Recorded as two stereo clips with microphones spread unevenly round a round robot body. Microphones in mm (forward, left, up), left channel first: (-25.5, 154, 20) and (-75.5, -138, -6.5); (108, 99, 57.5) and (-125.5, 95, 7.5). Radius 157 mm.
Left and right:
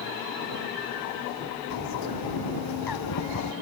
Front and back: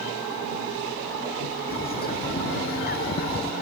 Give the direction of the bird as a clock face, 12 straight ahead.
10 o'clock.